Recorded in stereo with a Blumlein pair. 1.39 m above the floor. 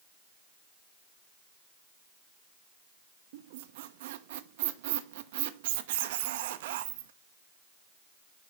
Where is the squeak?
55° right, 0.7 m.